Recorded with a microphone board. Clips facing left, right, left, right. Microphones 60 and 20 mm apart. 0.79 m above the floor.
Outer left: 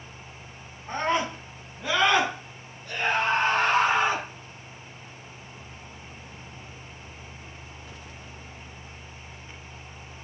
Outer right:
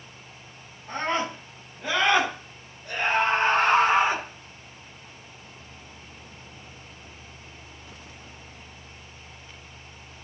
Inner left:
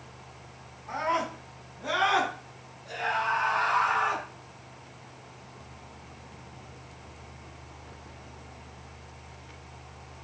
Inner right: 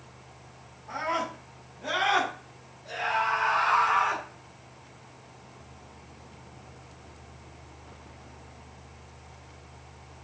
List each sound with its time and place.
0.9 s a scream: 5° left (ahead or behind), 5.5 m; by 4.2 s 35° right (ahead or behind), 6 m